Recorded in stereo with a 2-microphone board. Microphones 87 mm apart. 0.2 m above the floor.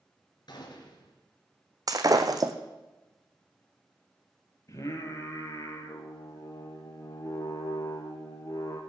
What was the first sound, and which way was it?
A gunshot, 55° left (ahead or behind).